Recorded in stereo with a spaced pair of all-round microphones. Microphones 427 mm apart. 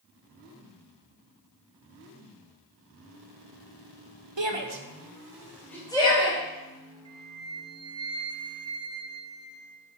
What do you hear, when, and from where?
4.4 s a shout: 80° right, 1.1 m; by 6.4 s 15° left (ahead or behind), 2.5 m
7.0 s a flute: 10° right (ahead or behind), 0.7 m